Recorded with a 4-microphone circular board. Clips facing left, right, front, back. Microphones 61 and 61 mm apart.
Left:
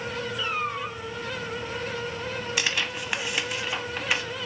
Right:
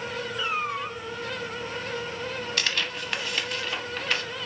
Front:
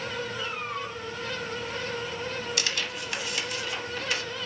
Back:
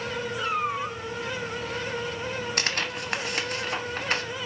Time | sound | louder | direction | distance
0.4 | a cat meowing | right 1 dB, back 6 dB | 165° right | 0.7 m
2.6 | tearing paper | left 1 dB, back 3 dB | 165° left | 0.5 m